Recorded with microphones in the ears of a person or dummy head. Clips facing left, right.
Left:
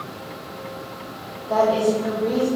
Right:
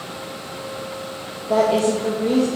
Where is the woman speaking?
25° right (ahead or behind), 0.7 m.